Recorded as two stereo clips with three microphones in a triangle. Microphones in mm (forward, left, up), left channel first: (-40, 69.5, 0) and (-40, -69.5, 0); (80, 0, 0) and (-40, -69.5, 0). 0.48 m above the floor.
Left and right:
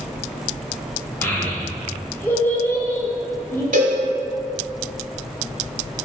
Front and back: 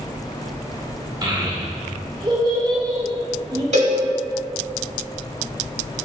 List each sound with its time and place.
1.2 s a child speaking: 165° left, 0.5 m
3.7 s a cowbell: 110° right, 0.8 m